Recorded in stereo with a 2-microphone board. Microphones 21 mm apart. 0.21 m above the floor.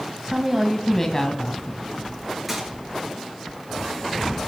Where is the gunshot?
10° right (ahead or behind), 4.5 m.